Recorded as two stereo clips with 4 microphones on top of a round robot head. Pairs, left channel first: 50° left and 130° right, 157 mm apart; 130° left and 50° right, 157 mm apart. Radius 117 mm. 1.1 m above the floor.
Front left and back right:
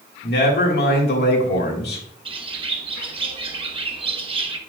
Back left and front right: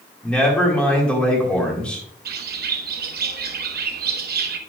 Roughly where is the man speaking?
Ahead left.